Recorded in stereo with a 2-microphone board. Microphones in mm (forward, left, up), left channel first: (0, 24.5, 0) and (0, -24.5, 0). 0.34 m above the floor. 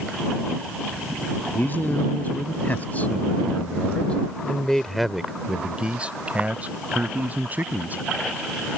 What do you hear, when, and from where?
1.5 s a man speaking: 40° left (ahead or behind); by 8.0 s 35° right (ahead or behind)